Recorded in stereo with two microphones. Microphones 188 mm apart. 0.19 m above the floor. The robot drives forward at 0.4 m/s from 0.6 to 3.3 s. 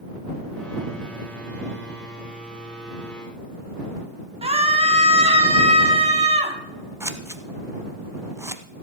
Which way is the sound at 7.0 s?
15° right (ahead or behind).